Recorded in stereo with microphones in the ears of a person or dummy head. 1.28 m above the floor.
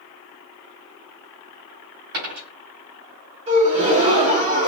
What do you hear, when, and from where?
2.1 s a dropped coin: 50° right (ahead or behind), 2.5 m
3.5 s a gasp: 30° right (ahead or behind), 1.5 m